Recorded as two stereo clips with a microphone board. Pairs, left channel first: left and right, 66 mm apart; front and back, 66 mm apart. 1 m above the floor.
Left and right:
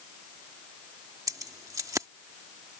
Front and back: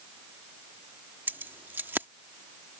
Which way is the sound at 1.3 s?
120° right.